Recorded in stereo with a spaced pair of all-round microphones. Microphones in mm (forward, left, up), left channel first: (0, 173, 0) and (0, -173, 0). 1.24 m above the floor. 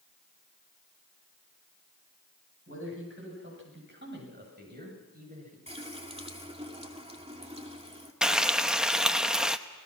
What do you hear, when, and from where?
2.7 s a man speaking: 40° right (ahead or behind), 9.5 m; by 5.6 s 25° right (ahead or behind), 7.5 m
5.7 s a running tap: 15° right (ahead or behind), 2 m
8.2 s frying: centre (ahead or behind), 0.7 m